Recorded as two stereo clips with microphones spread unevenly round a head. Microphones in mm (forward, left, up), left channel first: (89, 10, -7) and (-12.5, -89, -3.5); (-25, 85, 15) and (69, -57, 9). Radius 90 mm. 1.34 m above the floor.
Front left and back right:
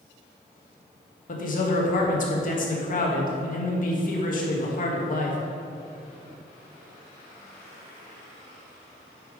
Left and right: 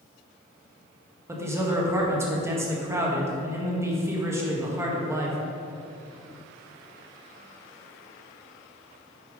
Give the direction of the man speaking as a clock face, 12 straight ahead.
11 o'clock.